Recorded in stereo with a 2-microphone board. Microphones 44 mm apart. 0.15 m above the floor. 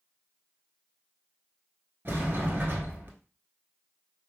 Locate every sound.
2.0 s a sliding door: 50° right (ahead or behind), 0.9 m